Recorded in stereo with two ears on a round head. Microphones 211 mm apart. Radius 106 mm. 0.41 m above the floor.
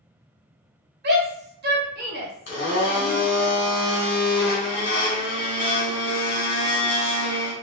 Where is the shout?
45° right (ahead or behind), 1.3 m.